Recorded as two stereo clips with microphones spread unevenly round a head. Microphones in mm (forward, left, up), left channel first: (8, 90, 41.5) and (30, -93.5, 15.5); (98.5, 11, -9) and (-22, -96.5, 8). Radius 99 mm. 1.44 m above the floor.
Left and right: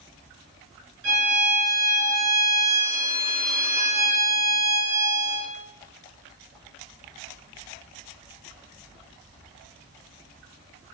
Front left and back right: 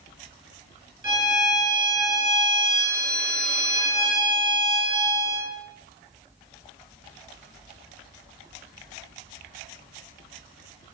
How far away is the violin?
About 5 m.